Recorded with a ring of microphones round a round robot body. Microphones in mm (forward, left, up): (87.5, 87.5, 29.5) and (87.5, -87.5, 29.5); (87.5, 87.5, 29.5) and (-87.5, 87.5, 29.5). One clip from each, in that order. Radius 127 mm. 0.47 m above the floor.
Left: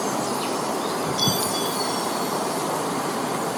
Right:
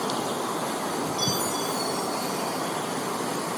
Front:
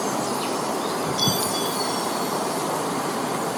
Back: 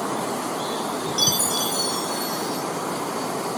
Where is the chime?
150° left, 2.5 m.